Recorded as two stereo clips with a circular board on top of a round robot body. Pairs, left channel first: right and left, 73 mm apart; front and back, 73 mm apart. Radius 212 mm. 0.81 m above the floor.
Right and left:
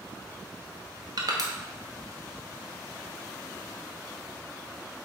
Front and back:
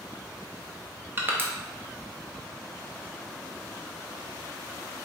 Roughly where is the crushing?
Behind left.